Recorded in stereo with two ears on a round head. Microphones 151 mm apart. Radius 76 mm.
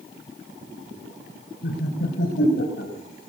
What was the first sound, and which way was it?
Laughter, 70° left (ahead or behind).